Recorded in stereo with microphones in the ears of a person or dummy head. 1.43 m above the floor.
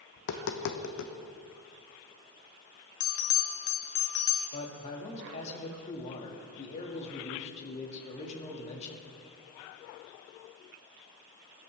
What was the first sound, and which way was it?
Tapping, 60° left (ahead or behind).